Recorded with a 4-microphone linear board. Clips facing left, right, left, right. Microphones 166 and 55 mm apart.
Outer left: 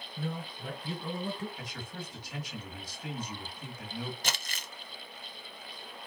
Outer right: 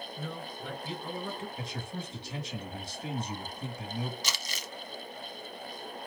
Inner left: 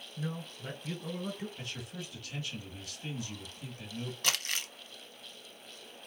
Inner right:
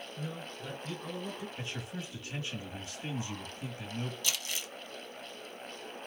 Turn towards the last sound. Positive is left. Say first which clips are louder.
# even, inner left 3 dB
turn(degrees=50)  # may be behind; listen again after turning